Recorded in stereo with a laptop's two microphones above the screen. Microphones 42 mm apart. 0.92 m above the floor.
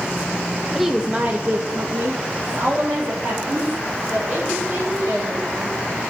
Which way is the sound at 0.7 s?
Centre (ahead or behind).